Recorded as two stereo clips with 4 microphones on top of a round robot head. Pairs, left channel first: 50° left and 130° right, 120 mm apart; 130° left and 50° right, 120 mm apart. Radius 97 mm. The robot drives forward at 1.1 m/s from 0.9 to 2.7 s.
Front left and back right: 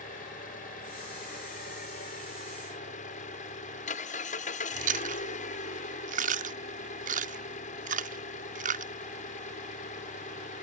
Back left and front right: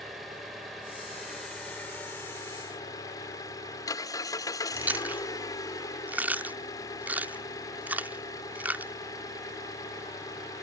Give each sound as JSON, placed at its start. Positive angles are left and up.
{"t": 0.0, "sound": "an engine running", "azimuth_deg": 40}
{"t": 4.8, "sound": "chewing", "azimuth_deg": -125}